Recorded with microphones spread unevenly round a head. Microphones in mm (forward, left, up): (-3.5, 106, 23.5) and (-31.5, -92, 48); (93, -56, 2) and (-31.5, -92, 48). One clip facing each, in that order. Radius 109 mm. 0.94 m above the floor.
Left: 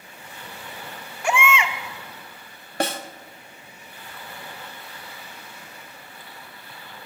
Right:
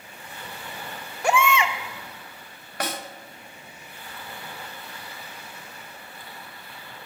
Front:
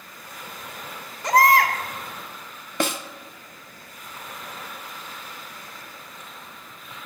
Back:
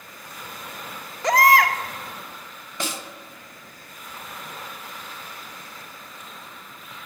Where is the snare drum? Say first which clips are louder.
Left 5 dB, front 6 dB; 20° left, 0.6 m.